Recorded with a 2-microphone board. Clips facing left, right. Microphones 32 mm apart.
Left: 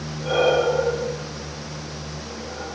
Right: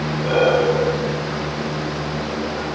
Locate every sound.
0.2 s breathing: 20° right (ahead or behind), 6.5 m